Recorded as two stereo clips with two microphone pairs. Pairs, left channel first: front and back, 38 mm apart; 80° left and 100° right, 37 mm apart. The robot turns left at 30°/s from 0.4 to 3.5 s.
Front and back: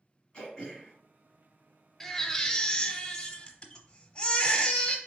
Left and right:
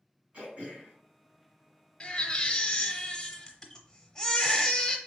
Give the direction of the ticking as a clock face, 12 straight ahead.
I don't hear ticking.